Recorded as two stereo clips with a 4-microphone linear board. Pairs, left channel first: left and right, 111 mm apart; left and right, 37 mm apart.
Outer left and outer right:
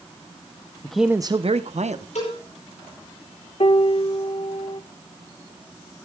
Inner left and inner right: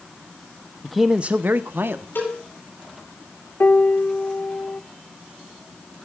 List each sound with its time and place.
0.8 s a man speaking: 10° left (ahead or behind), 0.8 m; by 2.0 s 85° right, 1.3 m
2.1 s a cowbell: 85° left, 10 m
3.6 s a piano: 60° left (ahead or behind), 0.6 m